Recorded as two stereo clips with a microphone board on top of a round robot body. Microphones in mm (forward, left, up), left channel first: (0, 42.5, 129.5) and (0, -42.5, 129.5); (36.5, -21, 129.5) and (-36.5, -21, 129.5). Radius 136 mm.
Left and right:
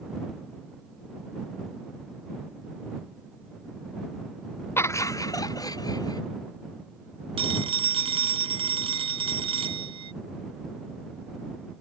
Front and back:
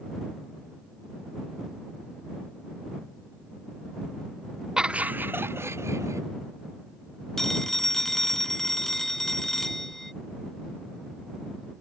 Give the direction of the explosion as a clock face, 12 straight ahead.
I don't hear an explosion.